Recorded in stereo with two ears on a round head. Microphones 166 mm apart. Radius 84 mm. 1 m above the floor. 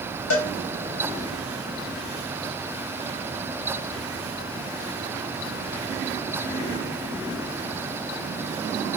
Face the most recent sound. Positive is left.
turn(degrees=80)